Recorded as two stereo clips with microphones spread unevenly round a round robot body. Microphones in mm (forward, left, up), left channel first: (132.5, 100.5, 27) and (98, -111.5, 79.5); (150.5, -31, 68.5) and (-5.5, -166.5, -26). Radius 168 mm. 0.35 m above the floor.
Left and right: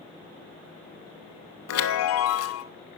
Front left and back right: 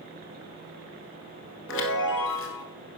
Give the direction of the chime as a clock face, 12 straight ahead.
9 o'clock.